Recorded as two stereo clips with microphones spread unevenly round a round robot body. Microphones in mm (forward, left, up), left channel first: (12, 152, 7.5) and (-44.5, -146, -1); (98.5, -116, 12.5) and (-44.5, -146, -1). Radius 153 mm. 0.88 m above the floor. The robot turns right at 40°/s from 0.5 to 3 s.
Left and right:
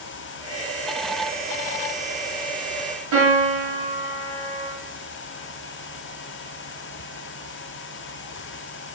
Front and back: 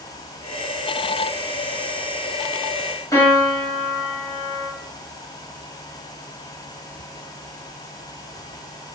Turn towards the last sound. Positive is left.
turn(degrees=-60)